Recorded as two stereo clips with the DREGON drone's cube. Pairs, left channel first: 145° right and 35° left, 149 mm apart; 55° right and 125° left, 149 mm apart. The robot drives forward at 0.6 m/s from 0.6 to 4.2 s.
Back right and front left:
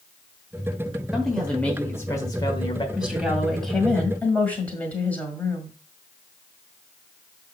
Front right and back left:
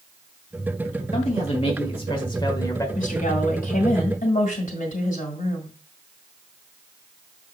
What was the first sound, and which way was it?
A man speaking, 55° right.